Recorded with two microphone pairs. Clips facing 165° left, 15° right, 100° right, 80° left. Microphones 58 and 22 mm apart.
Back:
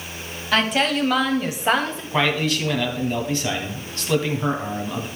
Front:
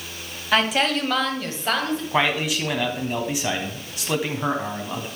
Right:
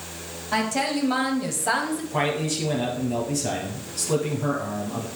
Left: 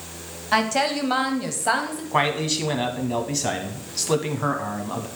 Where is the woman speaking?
65° left, 1.2 m; by 2.0 s 175° left, 1.1 m.